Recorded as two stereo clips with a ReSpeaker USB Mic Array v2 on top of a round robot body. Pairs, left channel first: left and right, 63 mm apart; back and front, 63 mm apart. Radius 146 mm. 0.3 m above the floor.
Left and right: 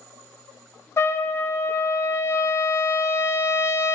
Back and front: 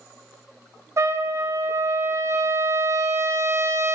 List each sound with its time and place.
1.0 s a trumpet: 45° left, 0.7 m